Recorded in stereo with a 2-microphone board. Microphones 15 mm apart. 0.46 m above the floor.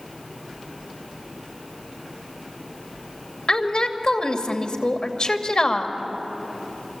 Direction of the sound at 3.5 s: 60° left (ahead or behind).